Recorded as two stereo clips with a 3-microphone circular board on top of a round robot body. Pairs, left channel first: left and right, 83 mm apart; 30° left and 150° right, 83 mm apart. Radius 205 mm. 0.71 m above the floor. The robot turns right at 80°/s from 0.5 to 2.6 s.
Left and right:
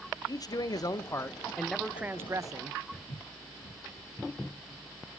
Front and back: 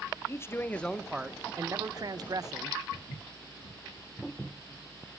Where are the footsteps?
45° left, 4.5 m.